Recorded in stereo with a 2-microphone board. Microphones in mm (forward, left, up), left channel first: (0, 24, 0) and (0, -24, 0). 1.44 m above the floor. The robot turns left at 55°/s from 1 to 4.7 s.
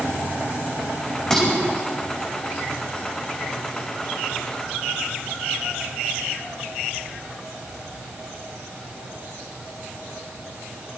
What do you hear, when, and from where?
1.3 s dishes clattering: 10° left (ahead or behind), 5 m; by 1.5 s centre (ahead or behind), 5 m